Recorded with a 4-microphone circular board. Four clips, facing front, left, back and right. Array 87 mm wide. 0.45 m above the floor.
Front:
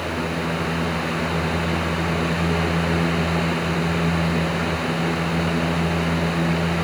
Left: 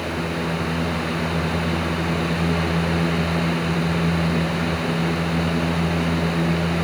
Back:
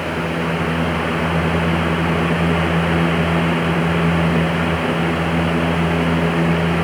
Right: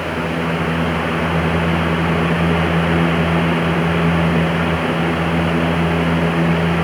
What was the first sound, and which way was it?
Only background noise.